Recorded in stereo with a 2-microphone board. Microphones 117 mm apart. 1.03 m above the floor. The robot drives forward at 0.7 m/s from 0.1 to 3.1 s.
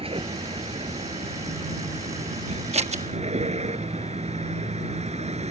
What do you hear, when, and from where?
0.0 s a vehicle: 55° right (ahead or behind); by 5.5 s 70° right (ahead or behind)
2.7 s scissors: 65° right (ahead or behind); by 3.0 s 80° right